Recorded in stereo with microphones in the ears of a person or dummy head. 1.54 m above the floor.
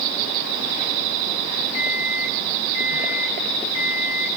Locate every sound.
1.7 s an alarm clock: 60° left (ahead or behind), 5 m